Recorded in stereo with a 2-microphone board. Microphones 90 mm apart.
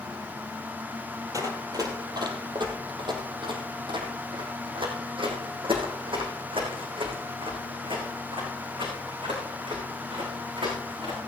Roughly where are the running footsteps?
Right.